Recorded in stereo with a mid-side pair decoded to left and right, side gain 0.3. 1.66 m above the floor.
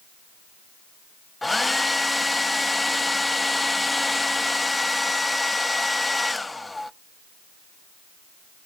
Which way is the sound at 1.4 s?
25° left.